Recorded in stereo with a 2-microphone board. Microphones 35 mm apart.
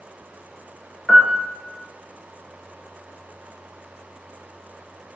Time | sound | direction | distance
1.1 | a piano | centre (ahead or behind) | 0.7 m